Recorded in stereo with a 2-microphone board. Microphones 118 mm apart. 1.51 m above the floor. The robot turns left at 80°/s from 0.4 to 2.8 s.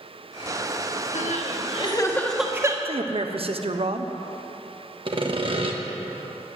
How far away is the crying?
About 1.4 m.